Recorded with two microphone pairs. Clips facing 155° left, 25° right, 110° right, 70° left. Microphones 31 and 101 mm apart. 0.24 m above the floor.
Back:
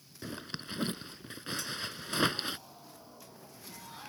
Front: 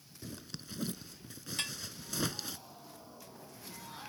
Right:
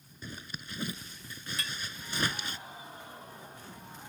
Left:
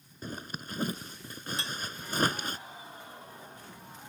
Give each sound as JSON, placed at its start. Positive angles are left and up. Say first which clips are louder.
{"t": 0.2, "sound": "a zipper", "louder": "back 6 dB, left 5 dB", "azimuth_deg": 110}
{"t": 1.6, "sound": "dishes clattering", "louder": "front 4 dB, even", "azimuth_deg": 10}